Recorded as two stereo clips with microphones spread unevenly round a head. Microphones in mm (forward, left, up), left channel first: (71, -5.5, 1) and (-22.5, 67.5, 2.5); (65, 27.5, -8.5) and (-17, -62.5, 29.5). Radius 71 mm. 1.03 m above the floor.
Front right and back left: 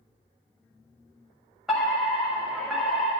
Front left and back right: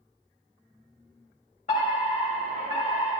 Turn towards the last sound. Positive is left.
turn(degrees=55)